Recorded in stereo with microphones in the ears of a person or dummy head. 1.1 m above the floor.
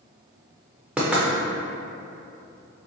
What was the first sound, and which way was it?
Knocking, 10° right (ahead or behind).